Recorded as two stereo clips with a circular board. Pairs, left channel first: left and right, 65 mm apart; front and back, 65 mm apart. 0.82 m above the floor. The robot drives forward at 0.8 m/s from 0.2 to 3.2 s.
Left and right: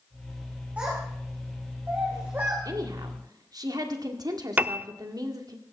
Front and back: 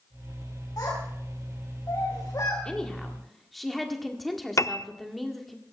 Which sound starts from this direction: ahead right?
A piano, at 4.6 s.